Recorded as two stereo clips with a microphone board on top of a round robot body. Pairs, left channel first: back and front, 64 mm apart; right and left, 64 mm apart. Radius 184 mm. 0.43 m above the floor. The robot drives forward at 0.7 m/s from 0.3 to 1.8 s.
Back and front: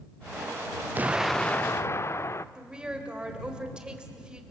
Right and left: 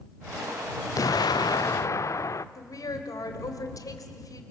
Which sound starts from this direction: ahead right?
An explosion, at 0.9 s.